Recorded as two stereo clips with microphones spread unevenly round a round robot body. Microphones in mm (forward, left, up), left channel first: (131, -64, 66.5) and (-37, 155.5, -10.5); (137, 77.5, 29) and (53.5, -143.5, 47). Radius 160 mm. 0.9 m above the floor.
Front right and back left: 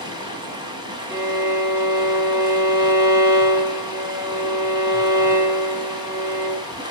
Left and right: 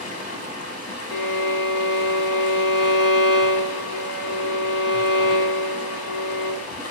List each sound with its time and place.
0.0 s running water: 50° left, 4.5 m
1.1 s a violin: 45° left, 3 m